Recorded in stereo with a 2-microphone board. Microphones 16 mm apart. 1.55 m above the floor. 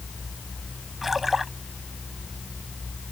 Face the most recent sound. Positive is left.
turn(degrees=-15)  # may be behind; listen again after turning